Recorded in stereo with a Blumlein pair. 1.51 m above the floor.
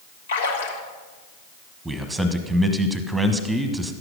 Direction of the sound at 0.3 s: 65° left.